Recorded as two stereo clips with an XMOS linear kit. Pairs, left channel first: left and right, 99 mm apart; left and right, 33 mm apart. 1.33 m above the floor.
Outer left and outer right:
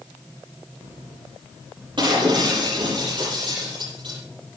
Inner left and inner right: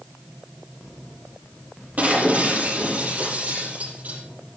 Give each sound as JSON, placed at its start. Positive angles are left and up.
{"t": 2.0, "sound": "breaking glass", "side_deg": -55, "distance_m": 9.5}